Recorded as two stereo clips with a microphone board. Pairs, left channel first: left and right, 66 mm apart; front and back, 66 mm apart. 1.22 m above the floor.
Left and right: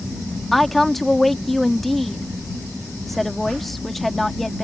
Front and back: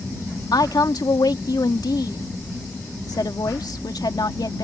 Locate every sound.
0.5 s a woman speaking: 5° left